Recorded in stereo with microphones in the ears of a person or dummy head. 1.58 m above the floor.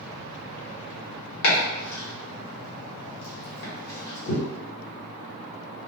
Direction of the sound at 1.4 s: 70° left (ahead or behind).